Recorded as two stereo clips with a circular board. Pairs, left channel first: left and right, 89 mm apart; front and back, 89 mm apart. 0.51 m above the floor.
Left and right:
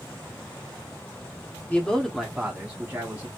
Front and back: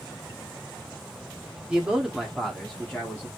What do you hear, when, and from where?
1.7 s a man speaking: 130° left, 0.8 m; by 3.3 s 55° right, 1.0 m